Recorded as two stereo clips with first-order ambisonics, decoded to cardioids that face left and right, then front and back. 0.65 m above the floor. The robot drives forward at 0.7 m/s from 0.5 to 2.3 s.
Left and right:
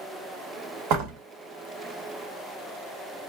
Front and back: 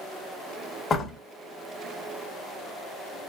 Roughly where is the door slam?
Right.